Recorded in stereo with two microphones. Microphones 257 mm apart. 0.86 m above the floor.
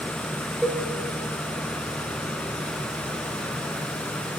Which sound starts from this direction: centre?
A cowbell, at 0.6 s.